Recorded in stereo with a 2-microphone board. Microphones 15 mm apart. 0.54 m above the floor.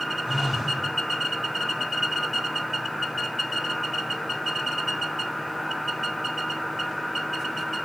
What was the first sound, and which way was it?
A phone buzzing, 15° right (ahead or behind).